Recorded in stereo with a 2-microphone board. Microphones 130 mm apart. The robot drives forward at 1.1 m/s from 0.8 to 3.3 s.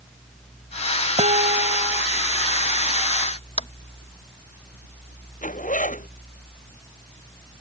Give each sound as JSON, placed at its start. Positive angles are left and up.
{"t": 1.2, "sound": "dishes clattering", "side_deg": -65}
{"t": 3.6, "sound": "tapping", "side_deg": 50}
{"t": 5.4, "sound": "a zipper", "side_deg": 85}